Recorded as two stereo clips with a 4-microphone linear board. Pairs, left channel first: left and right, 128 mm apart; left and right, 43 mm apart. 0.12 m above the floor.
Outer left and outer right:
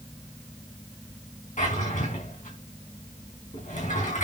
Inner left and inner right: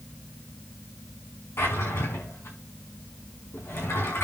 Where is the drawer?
75° left (ahead or behind), 5 m.